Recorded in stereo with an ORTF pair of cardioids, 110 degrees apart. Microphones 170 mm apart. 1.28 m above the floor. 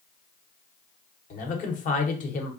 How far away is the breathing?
No breathing in this recording.